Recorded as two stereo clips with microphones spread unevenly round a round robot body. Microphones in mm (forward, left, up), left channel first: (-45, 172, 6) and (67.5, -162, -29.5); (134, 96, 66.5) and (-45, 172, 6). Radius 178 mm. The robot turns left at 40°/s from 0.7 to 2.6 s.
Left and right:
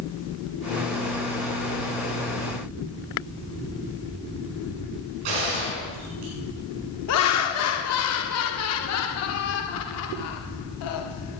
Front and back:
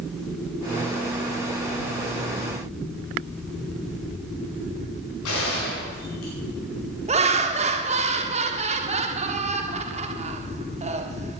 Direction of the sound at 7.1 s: 150° left.